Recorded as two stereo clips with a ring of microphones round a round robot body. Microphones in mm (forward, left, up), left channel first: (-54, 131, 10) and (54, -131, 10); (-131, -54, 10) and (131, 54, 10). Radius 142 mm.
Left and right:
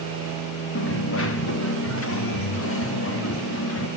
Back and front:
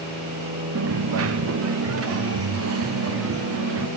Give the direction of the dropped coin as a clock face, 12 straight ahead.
10 o'clock.